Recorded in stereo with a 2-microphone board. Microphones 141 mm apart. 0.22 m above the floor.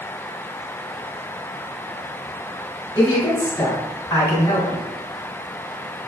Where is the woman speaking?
25° left (ahead or behind), 1.6 m.